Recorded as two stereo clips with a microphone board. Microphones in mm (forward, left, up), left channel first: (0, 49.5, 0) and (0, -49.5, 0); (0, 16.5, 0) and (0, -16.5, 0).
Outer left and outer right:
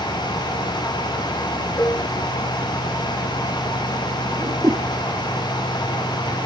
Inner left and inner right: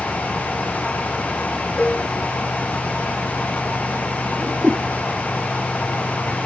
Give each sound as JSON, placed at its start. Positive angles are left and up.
{"t": 1.8, "sound": "dishes clattering", "side_deg": 25}
{"t": 4.4, "sound": "a whoosh", "side_deg": -35}